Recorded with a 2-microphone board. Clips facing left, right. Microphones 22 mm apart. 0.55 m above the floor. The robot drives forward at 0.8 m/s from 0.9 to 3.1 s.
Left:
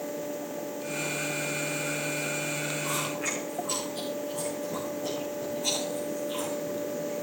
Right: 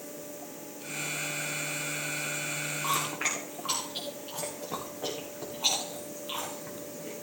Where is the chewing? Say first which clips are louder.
Right 1 dB; 65° right (ahead or behind), 9 m.